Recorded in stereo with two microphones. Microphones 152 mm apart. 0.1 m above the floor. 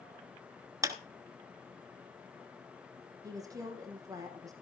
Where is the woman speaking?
20° right (ahead or behind), 4 m.